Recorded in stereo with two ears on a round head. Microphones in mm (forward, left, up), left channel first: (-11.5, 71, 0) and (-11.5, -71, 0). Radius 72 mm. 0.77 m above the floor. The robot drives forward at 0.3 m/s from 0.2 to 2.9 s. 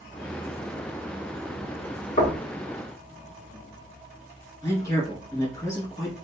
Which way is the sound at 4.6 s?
20° left (ahead or behind).